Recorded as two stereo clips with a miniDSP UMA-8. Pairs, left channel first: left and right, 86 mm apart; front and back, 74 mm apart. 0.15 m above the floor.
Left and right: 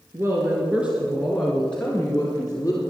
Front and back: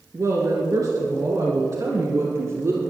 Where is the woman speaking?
140° right, 2.5 m; by 2.8 s 140° left, 3 m.